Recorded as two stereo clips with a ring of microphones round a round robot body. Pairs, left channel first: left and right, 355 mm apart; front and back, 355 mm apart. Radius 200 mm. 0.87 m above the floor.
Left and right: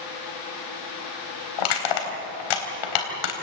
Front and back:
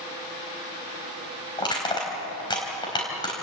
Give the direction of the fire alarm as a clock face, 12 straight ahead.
I don't hear a fire alarm.